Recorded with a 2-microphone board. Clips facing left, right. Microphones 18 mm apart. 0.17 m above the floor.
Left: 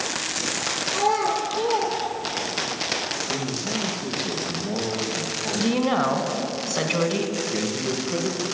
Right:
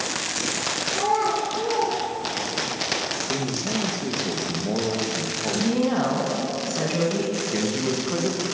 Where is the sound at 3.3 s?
40° right (ahead or behind), 3 m.